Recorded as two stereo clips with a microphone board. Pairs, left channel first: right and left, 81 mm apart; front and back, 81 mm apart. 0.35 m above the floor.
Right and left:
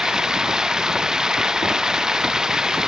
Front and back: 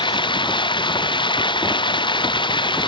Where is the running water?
5° left.